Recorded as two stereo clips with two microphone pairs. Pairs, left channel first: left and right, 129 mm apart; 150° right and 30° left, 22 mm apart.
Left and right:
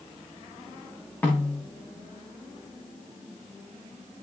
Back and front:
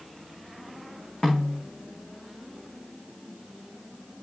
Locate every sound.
1.2 s a snare drum: 165° left, 5 m